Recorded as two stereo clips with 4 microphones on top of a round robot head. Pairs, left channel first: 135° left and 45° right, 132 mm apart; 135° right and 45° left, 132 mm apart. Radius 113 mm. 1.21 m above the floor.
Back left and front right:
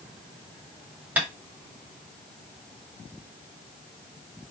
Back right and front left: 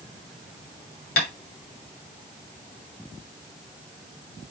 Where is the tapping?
120° right, 1.2 m.